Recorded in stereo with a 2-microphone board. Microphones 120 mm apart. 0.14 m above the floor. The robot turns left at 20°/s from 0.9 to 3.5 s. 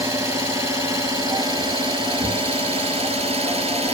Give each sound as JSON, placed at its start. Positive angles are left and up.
{"t": 0.0, "sound": "an engine running", "azimuth_deg": -30, "distance_m": 0.7}